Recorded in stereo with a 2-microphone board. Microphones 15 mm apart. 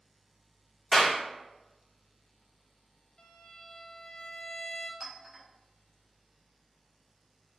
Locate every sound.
0.9 s a clap: 50° left (ahead or behind), 1.6 m
3.2 s a violin: 50° left (ahead or behind), 0.6 m
5.0 s a clink: 25° right (ahead or behind), 1.4 m